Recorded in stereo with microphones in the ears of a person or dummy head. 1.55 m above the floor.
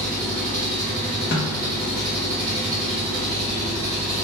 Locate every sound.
0.0 s an engine running: 20° right (ahead or behind), 1.2 m
1.3 s a snare drum: 55° left (ahead or behind), 0.6 m